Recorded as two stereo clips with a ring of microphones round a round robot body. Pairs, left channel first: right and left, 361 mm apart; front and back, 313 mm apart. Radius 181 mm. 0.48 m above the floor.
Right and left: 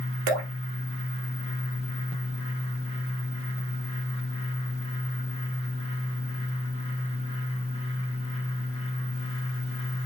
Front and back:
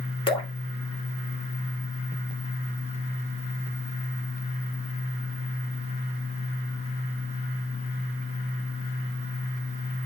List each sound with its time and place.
0.3 s dripping: 75° left, 3 m